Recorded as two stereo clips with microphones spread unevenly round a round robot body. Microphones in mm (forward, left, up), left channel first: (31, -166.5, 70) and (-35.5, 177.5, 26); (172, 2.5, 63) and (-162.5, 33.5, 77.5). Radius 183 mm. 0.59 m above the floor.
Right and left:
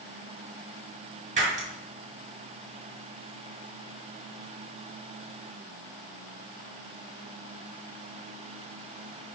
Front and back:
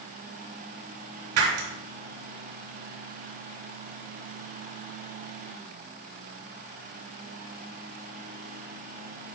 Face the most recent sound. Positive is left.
turn(degrees=170)